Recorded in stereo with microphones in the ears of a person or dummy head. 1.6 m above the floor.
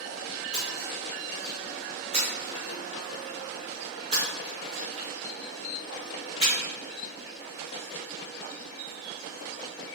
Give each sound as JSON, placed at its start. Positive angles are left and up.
{"t": 0.5, "sound": "a splash", "side_deg": -35, "distance_m": 3.5}